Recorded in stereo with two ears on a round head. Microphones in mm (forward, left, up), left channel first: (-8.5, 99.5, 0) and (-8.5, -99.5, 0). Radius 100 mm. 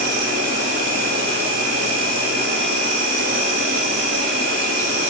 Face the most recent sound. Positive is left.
turn(degrees=-50)  # may be behind; listen again after turning